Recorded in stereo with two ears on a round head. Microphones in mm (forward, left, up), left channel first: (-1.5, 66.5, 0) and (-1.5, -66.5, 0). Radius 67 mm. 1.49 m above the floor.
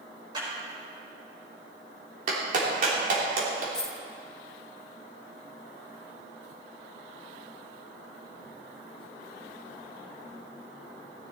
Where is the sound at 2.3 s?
55° right (ahead or behind), 3 m.